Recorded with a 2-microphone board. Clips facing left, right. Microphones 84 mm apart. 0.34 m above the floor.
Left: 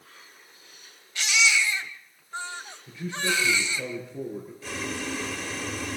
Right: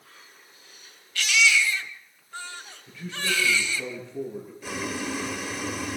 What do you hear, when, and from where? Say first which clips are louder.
1.1 s a baby crying: right 2 dB; 20° left (ahead or behind), 1.4 m
2.9 s a man speaking: left 2 dB; 15° left (ahead or behind), 7.5 m
4.6 s boiling: right 3 dB; 15° right (ahead or behind), 1.5 m